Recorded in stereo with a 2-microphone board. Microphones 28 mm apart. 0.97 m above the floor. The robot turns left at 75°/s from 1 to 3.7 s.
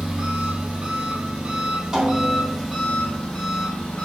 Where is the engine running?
65° right, 1.6 m; by 4.0 s 95° left, 1.6 m.